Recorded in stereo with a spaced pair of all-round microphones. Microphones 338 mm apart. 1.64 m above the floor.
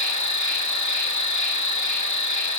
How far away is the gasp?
No gasp in this recording.